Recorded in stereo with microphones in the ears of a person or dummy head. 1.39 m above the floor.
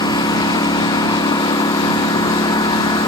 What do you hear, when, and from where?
0.0 s a lawn mower: 20° left (ahead or behind)